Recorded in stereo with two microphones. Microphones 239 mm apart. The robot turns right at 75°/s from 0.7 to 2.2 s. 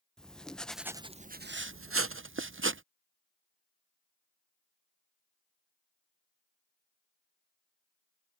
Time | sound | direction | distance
0.2 | writing | 175° left | ?